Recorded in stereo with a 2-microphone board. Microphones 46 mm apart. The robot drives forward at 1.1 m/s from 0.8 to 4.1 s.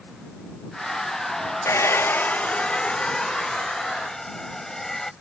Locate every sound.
1.6 s a hair dryer: 75° left (ahead or behind); by 5.1 s 10° left (ahead or behind)